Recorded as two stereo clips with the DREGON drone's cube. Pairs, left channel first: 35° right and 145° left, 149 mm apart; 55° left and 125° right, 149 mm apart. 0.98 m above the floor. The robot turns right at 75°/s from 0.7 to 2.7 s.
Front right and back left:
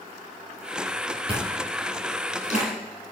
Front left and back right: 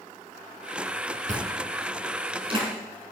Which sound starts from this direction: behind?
Chewing, at 1.3 s.